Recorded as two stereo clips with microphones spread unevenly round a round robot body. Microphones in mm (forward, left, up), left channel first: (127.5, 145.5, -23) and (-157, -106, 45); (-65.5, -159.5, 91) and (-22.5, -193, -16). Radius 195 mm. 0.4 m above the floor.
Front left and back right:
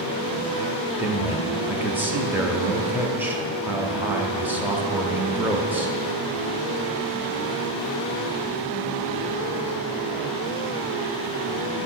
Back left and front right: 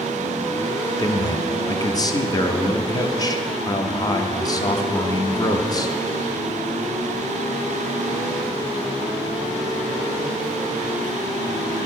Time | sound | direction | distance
1.0 | a man speaking | 40° right | 0.8 m